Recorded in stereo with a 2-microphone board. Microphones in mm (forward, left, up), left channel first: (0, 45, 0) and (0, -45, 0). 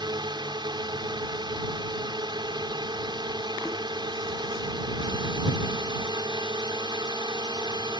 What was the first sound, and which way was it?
A drone, 60° right (ahead or behind).